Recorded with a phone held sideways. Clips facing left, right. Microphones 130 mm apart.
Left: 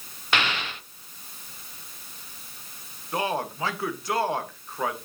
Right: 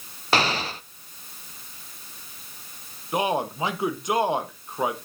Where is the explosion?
35° right (ahead or behind), 0.5 m.